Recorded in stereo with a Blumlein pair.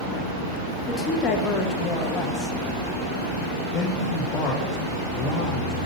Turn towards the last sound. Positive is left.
turn(degrees=35)